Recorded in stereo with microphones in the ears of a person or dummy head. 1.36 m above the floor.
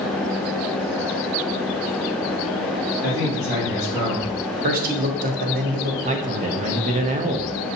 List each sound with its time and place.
3.0 s a man speaking: 20° right (ahead or behind), 2.5 m; by 4.3 s 25° right (ahead or behind), 3.5 m
4.6 s a man speaking: 50° right (ahead or behind), 0.9 m
6.0 s a man speaking: 30° right (ahead or behind), 0.6 m